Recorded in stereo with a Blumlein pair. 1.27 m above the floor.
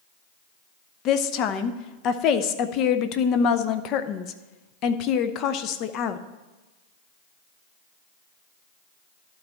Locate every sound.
1.1 s a woman speaking: 35° left, 0.7 m